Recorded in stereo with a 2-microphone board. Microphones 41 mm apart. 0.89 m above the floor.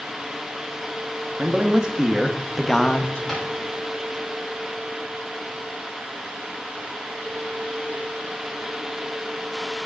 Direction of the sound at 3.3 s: 10° left (ahead or behind).